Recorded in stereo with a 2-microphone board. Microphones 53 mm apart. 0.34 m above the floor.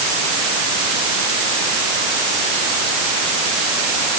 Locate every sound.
Only background noise.